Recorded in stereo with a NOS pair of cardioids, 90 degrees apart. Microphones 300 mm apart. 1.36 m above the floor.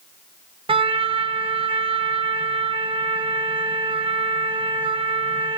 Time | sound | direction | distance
0.7 | a trumpet | 20° right | 0.7 m